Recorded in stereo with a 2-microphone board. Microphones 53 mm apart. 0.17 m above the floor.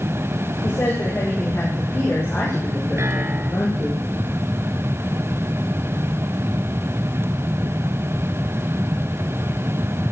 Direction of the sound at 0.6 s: 50° left (ahead or behind).